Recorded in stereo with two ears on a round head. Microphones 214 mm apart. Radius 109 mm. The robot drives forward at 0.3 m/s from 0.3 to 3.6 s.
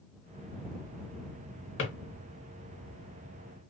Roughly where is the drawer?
Left.